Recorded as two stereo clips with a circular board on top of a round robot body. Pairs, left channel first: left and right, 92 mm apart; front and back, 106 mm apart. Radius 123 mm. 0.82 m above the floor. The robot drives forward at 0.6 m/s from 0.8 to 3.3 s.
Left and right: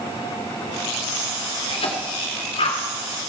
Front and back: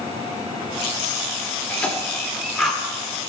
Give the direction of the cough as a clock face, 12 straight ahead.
9 o'clock.